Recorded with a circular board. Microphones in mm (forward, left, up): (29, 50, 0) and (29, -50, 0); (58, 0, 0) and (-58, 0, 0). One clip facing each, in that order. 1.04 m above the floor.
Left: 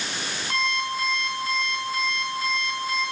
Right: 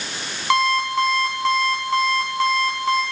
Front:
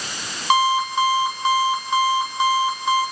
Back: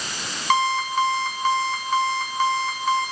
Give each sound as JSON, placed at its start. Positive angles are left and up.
{"t": 0.5, "sound": "an alarm clock", "azimuth_deg": -80, "distance_m": 5.5}